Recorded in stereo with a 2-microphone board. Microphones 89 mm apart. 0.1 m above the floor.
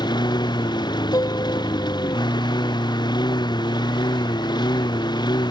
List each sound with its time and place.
0.0 s a lawn mower: 55° left (ahead or behind)
1.1 s a piano: 45° left (ahead or behind)